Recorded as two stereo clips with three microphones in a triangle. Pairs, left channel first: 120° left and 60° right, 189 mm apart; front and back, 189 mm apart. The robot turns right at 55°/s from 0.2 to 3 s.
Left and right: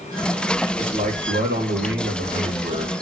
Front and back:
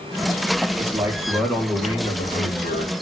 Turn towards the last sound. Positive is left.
turn(degrees=-5)